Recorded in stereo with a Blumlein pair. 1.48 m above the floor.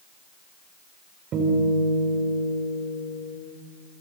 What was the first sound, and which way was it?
A guitar, 30° right.